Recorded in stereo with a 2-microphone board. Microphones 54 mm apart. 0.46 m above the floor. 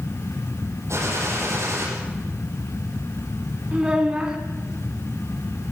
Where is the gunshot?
60° right (ahead or behind), 7 m.